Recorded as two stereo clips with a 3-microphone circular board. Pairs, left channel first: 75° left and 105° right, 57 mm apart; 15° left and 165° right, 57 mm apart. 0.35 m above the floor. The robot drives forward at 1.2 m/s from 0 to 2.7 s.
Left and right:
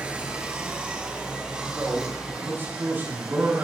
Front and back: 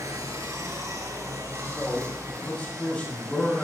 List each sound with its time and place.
0.0 s running water: 175° right, 2.5 m; by 3.6 s straight behind, 5.5 m
1.7 s a man speaking: 55° right, 10 m; by 3.6 s 60° right, 9 m